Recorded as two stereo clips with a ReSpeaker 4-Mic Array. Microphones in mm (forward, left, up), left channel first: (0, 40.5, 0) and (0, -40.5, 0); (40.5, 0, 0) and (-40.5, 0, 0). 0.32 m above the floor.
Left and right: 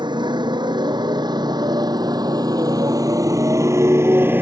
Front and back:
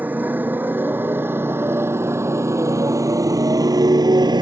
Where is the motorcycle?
110° right; by 4.4 s 155° right.